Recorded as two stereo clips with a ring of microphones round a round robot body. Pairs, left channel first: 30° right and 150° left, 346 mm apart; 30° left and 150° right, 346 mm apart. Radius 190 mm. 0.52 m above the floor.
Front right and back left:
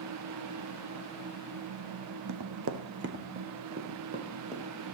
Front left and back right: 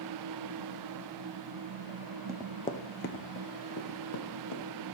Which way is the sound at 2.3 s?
130° left.